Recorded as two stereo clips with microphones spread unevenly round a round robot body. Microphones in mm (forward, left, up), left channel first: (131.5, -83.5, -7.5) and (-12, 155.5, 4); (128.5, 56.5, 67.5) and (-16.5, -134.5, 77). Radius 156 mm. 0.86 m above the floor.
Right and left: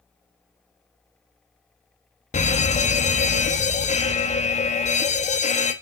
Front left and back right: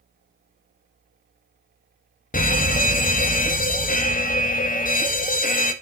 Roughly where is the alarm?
Ahead.